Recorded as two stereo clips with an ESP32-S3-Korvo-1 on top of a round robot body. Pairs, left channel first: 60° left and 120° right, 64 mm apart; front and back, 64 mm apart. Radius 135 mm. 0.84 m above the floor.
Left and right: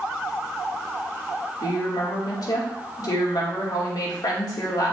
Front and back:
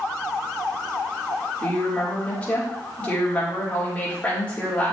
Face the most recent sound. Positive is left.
turn(degrees=70)